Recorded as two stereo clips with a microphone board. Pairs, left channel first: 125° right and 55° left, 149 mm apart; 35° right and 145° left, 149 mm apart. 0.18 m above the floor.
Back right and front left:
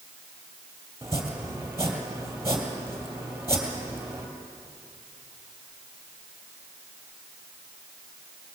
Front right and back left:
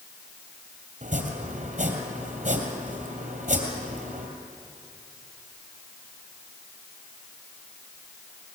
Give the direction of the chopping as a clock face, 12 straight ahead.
8 o'clock.